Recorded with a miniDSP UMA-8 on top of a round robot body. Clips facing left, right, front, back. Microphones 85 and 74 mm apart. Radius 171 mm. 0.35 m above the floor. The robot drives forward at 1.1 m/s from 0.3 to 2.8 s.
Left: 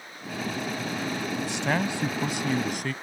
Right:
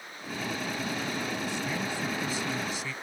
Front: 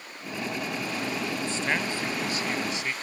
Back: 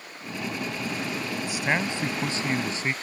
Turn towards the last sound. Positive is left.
turn(degrees=125)